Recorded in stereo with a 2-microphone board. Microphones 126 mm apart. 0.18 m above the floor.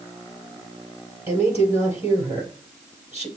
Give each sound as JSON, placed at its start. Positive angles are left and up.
{"t": 1.3, "sound": "a woman speaking", "side_deg": -20, "distance_m": 3.5}